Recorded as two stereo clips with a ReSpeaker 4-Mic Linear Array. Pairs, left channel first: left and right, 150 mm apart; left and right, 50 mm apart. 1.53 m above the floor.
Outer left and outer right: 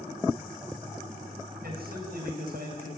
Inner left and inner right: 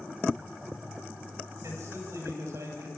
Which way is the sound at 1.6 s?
85° right.